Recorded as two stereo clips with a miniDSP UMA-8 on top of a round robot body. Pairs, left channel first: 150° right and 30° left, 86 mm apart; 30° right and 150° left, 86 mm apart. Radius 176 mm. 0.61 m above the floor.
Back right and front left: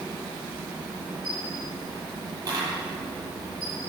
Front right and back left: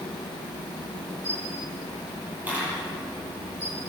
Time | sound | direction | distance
1.2 | a camera shutter | 75° left | 9 m